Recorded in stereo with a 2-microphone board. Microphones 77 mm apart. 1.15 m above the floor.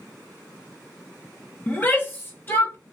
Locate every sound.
1.7 s a shout: 20° left (ahead or behind), 0.9 m; by 2.8 s 30° left (ahead or behind), 1.6 m